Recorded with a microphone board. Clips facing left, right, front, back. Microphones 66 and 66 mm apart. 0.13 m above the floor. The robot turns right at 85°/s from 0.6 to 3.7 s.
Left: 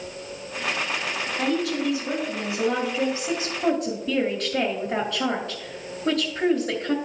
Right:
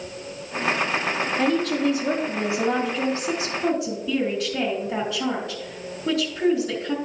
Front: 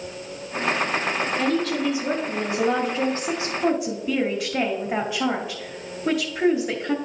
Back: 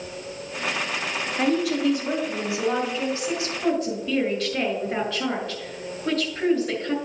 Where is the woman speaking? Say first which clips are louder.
Right 2 dB, back 3 dB; 125° right, 2.0 m; by 7.0 s 75° left, 2.0 m.